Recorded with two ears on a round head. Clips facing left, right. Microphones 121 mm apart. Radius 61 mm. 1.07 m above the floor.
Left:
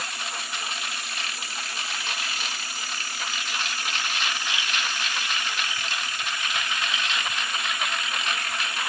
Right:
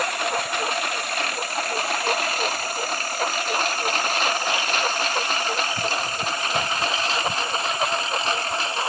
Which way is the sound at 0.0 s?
45° right (ahead or behind).